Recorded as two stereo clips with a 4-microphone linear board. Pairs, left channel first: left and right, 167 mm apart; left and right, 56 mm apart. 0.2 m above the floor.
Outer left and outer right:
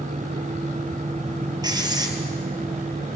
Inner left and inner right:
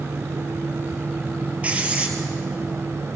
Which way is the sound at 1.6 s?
25° right (ahead or behind).